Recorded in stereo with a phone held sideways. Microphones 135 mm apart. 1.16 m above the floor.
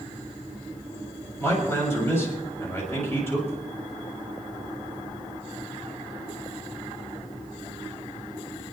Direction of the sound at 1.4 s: 20° left (ahead or behind).